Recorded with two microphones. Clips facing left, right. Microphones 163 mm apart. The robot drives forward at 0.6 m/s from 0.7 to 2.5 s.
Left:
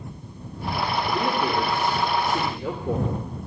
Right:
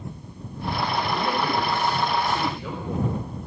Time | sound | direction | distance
1.1 | a man speaking | 65° left (ahead or behind) | 2.5 m